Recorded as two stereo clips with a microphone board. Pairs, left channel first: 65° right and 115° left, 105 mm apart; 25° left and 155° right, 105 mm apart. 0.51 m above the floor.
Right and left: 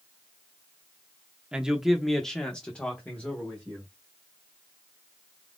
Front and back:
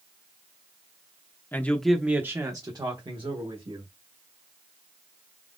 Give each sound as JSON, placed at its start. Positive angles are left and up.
{"t": 1.5, "sound": "a man speaking", "azimuth_deg": 45, "distance_m": 0.7}